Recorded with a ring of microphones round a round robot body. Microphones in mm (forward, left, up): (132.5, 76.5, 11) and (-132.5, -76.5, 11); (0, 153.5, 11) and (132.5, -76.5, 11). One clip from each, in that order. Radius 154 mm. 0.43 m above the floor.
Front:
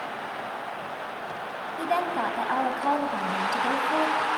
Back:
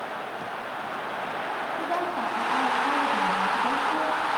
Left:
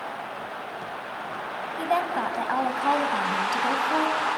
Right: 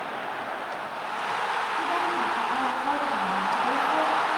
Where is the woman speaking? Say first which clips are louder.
Front 5 dB, left 5 dB; 90° left, 2.5 m; by 4.3 s 65° left, 3.5 m.